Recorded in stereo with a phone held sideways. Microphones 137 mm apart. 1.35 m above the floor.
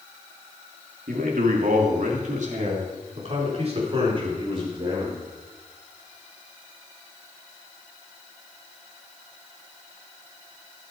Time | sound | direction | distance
1.1 | a man speaking | 90° right | 3 m